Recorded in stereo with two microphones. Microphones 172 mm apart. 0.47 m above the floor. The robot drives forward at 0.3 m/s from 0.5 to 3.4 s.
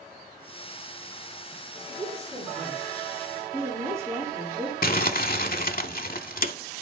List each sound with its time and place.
1.9 s a woman speaking: 20° right (ahead or behind), 2.5 m; by 4.7 s 15° right (ahead or behind), 3 m
4.8 s crumpling: 60° left (ahead or behind), 0.6 m